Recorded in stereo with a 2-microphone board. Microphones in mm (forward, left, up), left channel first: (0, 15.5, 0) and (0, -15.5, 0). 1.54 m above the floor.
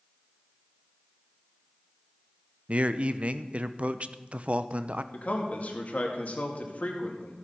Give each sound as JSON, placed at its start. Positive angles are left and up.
{"t": 2.7, "sound": "a man speaking", "side_deg": -45, "distance_m": 0.6}
{"t": 5.1, "sound": "a man speaking", "side_deg": 50, "distance_m": 2.0}